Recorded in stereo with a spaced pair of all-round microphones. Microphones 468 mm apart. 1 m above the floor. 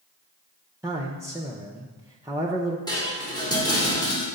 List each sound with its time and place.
0.8 s a man speaking: 5° right (ahead or behind), 0.7 m
2.9 s dishes clattering: 10° left (ahead or behind), 1.6 m